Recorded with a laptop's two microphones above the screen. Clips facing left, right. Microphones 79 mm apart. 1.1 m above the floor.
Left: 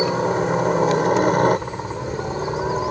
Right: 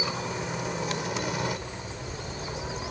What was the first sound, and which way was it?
A helicopter, 45° left (ahead or behind).